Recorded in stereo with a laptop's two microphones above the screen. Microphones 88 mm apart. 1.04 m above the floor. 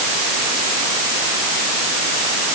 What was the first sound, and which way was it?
Only background noise.